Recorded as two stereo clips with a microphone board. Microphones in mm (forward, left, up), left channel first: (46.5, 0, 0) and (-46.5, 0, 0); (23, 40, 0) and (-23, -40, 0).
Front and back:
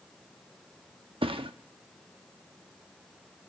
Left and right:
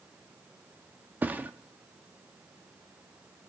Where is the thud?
170° left, 0.6 m.